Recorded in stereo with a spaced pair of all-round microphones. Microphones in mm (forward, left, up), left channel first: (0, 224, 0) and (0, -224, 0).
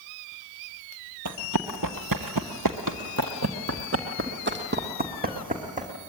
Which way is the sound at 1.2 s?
40° right (ahead or behind).